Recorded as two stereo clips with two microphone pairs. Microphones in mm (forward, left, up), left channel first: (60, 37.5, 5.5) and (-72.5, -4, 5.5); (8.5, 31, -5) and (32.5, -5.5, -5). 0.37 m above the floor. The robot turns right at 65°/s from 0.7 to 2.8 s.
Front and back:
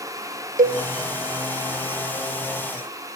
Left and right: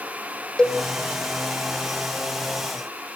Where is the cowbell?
165° right, 0.8 m.